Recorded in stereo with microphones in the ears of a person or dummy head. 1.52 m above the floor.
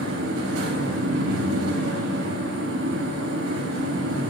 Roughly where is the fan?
Right.